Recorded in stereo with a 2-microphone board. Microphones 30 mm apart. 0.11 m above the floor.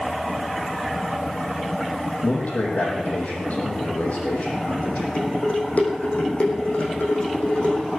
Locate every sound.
2.2 s a man speaking: 60° left (ahead or behind), 5.5 m
5.2 s dishes clattering: 55° left (ahead or behind), 4 m